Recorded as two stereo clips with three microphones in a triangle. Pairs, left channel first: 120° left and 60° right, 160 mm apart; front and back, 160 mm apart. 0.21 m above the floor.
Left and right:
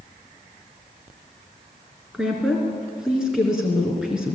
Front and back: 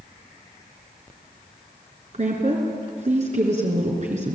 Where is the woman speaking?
145° right, 3.5 m.